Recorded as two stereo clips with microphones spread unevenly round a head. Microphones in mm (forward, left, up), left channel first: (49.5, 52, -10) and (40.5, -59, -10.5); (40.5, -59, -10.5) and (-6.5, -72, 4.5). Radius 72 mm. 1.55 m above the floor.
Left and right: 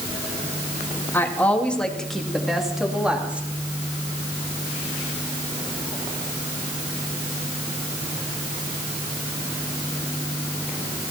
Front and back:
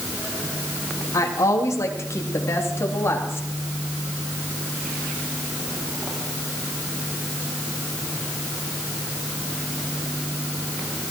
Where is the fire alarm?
I don't hear a fire alarm.